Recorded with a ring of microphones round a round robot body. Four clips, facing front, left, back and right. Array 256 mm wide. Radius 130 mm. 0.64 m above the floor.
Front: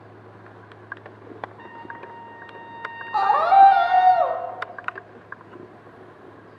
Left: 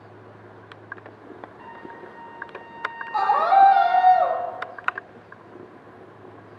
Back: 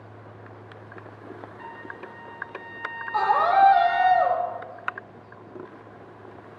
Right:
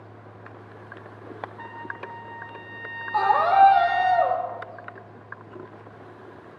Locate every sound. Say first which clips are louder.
1.6 s a trumpet: right 2 dB, front 1 dB; 65° right, 1.7 m
3.1 s a scream: left 1 dB, front 5 dB; 5° left, 1.4 m